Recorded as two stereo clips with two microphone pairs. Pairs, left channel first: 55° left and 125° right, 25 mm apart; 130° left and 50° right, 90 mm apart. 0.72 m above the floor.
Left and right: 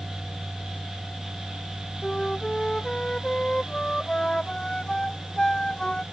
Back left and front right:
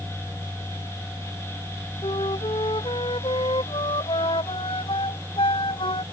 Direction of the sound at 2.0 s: 120° left.